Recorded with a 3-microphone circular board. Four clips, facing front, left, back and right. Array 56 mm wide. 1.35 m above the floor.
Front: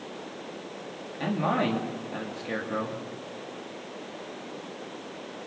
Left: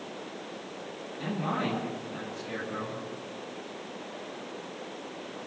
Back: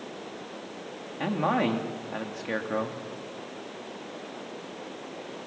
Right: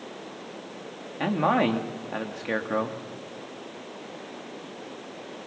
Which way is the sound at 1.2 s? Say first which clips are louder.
Right 8 dB, back 1 dB; 100° right.